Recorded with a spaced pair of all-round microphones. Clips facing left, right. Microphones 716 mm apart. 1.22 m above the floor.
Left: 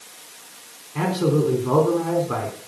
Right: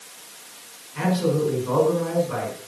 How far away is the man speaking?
About 4.5 m.